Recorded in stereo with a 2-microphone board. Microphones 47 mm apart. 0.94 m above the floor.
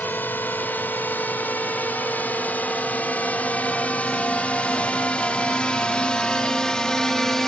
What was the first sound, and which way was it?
A drone, 45° left (ahead or behind).